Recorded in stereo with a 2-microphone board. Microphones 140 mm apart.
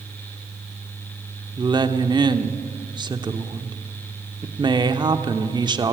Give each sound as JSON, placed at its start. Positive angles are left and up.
{"t": 1.6, "sound": "a woman speaking", "side_deg": -30, "distance_m": 0.9}